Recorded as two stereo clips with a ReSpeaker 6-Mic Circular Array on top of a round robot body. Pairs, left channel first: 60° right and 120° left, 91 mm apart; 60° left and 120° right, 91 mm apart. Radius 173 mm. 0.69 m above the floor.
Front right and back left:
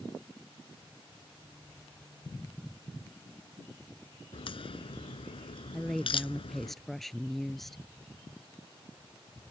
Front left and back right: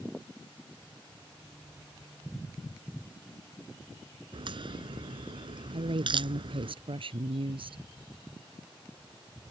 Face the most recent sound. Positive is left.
turn(degrees=-145)